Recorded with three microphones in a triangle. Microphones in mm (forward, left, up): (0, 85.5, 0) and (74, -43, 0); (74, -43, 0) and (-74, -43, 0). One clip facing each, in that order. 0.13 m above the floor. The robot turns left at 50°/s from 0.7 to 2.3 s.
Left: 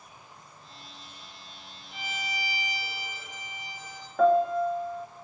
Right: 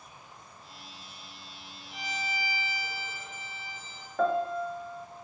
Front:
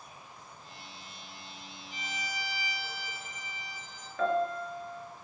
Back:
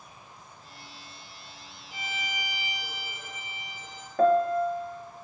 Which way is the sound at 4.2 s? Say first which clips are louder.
Left 6 dB, back 8 dB; 150° right.